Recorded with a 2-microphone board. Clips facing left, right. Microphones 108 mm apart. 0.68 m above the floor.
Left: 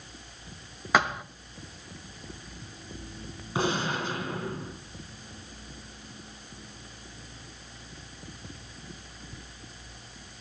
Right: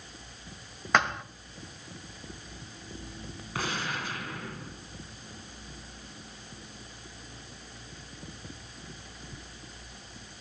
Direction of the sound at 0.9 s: 5° left (ahead or behind).